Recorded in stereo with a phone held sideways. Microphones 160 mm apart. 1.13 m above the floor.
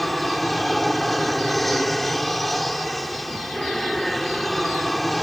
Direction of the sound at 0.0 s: Centre (ahead or behind).